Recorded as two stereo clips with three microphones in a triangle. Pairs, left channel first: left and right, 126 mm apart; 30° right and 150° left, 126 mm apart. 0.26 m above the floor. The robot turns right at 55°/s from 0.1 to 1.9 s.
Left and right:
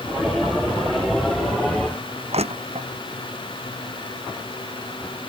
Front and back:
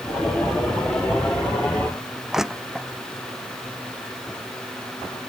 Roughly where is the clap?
No clap in this recording.